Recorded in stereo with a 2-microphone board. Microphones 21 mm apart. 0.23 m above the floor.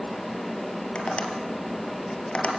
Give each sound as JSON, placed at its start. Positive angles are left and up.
{"t": 0.9, "sound": "tapping", "side_deg": 75, "distance_m": 3.0}